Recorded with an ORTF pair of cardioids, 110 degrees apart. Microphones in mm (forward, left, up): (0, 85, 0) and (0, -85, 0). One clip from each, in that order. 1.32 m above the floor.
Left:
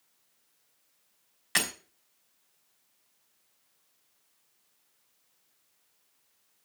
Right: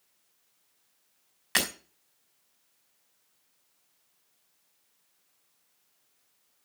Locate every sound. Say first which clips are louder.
1.6 s breaking glass: right 1 dB; 15° right, 4.5 m